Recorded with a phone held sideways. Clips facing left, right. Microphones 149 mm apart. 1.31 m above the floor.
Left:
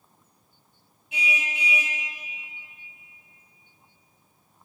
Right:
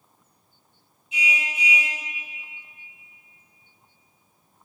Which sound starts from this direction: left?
A car horn, at 1.1 s.